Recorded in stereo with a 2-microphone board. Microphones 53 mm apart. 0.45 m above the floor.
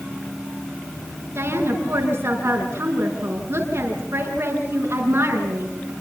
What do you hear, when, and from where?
1.4 s a woman speaking: 45° right (ahead or behind), 5.5 m